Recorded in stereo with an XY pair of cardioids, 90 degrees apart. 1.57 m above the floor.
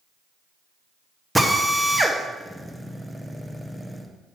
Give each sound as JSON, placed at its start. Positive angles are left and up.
{"t": 1.4, "sound": "a drill", "azimuth_deg": -15, "distance_m": 1.1}